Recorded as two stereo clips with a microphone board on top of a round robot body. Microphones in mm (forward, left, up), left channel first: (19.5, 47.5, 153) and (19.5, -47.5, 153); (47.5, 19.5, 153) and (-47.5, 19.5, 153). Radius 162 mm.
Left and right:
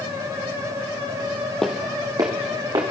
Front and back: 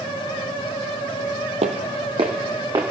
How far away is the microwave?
I don't hear a microwave.